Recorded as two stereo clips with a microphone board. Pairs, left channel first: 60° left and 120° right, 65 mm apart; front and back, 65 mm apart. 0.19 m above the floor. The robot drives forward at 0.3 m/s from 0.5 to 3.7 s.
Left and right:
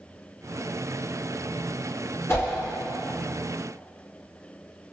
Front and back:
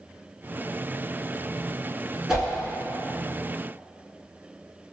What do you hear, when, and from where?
2.3 s a whoosh: 100° left, 1.3 m